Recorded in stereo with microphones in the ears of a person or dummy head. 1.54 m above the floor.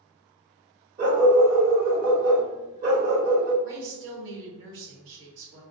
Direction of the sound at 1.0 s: 50° right (ahead or behind).